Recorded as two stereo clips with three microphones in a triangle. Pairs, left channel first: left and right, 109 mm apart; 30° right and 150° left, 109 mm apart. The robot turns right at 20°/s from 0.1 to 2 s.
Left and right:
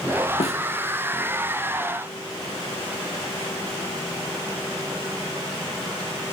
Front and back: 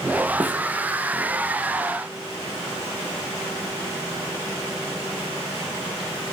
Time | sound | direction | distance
0.4 | a snare drum | 75° left | 2.0 m